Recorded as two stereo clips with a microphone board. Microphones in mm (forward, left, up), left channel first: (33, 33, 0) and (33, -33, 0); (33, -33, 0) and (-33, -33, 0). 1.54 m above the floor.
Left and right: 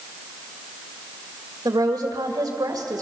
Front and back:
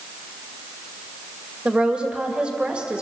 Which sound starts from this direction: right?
A woman speaking, at 1.6 s.